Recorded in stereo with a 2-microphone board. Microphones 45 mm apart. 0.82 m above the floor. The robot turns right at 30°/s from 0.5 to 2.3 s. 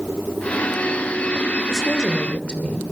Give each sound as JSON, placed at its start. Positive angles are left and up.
{"t": 1.7, "sound": "a woman speaking", "side_deg": 5, "distance_m": 2.5}